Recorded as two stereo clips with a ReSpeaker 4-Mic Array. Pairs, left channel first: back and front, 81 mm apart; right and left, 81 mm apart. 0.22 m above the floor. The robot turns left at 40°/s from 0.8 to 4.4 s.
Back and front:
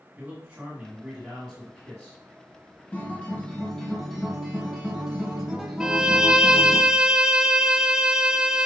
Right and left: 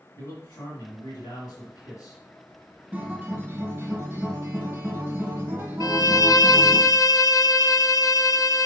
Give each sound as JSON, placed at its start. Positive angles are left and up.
{"t": 0.2, "sound": "a man speaking", "azimuth_deg": -55, "distance_m": 1.8}
{"t": 2.9, "sound": "a guitar", "azimuth_deg": 135, "distance_m": 1.4}
{"t": 5.8, "sound": "a violin", "azimuth_deg": -80, "distance_m": 0.5}